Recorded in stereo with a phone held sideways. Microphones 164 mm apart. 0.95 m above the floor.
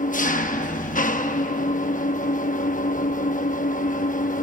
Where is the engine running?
55° left (ahead or behind), 0.8 m.